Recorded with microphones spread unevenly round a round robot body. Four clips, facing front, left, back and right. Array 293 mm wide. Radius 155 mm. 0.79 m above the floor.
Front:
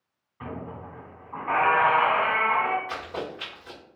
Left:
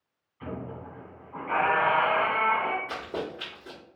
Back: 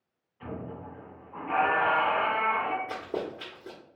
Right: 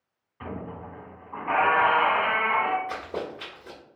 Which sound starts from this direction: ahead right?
A squeak, at 0.4 s.